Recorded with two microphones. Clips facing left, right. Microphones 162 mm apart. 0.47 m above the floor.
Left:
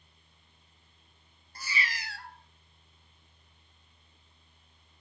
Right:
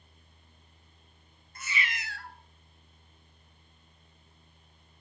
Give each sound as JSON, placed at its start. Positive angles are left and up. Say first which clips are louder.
{"t": 1.6, "sound": "a cat meowing", "louder": "even", "side_deg": 35, "distance_m": 0.8}